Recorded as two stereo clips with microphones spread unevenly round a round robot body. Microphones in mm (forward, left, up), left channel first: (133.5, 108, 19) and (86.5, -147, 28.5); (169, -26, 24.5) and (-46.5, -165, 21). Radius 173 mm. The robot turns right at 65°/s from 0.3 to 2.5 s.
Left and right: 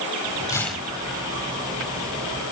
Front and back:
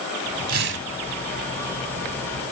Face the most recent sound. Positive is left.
turn(degrees=-75)